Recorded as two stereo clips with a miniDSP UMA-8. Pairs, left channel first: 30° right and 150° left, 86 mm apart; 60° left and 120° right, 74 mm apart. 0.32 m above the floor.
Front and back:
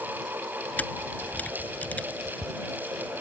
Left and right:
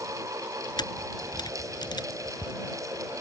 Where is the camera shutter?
45° left.